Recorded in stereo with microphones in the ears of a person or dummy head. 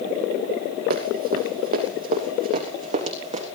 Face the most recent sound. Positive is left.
turn(degrees=-35)  # may be behind; listen again after turning